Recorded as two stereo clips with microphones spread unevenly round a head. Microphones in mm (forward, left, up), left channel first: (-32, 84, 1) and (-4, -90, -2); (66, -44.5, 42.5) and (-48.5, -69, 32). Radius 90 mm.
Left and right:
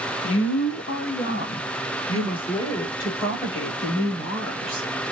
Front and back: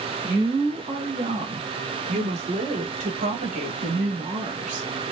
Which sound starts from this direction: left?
A woman speaking, at 0.2 s.